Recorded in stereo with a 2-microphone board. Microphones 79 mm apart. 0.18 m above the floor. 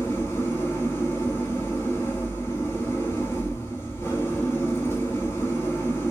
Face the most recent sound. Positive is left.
turn(degrees=35)  # may be behind; listen again after turning